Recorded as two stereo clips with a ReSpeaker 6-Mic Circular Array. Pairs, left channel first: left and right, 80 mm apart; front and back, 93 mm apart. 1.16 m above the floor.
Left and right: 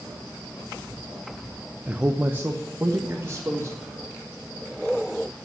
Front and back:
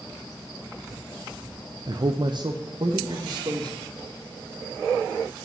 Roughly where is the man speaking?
Behind.